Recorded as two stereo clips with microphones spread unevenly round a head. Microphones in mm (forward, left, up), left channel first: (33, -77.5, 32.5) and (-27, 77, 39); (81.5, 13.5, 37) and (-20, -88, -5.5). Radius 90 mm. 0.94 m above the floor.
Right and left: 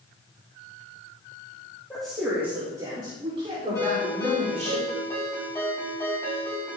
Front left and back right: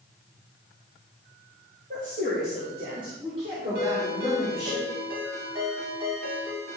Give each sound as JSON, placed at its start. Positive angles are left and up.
{"t": 1.9, "sound": "a woman speaking", "azimuth_deg": -155, "distance_m": 2.5}
{"t": 3.8, "sound": "a ringtone", "azimuth_deg": -145, "distance_m": 4.5}